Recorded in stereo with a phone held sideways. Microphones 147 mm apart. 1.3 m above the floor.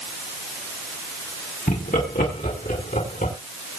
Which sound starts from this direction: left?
Laughter, at 1.7 s.